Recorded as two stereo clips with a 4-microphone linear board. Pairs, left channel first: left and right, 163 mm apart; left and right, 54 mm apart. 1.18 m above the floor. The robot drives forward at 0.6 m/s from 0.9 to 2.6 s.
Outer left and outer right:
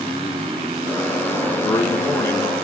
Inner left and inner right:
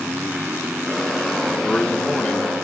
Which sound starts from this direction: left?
A man speaking, at 1.6 s.